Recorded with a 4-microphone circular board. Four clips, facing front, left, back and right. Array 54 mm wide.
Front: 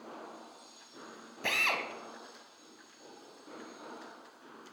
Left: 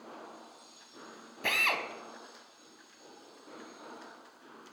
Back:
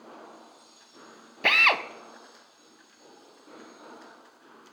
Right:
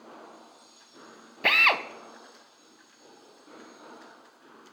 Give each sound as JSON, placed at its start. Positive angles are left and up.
{"t": 1.4, "sound": "a drill", "azimuth_deg": -140, "distance_m": 0.9}